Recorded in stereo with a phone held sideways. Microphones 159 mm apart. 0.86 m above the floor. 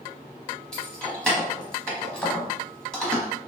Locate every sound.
0.7 s keys jangling: 5° left (ahead or behind), 0.8 m